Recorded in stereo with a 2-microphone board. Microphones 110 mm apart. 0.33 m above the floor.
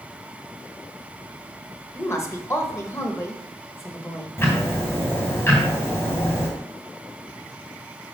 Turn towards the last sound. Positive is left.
turn(degrees=20)  # may be behind; listen again after turning